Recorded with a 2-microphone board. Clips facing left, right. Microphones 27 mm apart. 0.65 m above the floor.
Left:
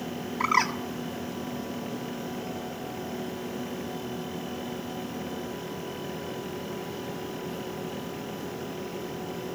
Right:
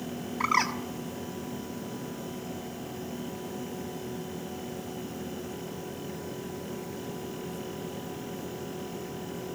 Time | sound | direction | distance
0.4 | a bird | 5° left (ahead or behind) | 1.1 m